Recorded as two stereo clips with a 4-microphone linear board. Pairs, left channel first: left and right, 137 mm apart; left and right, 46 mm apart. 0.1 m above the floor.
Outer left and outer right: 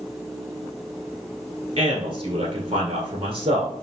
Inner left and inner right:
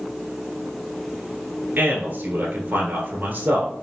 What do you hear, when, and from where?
1.8 s a man speaking: 40° right (ahead or behind), 1.5 m